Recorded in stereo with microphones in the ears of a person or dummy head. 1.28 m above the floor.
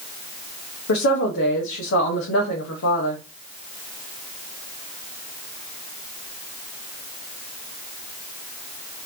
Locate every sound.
0.9 s a woman speaking: 70° left (ahead or behind), 1.2 m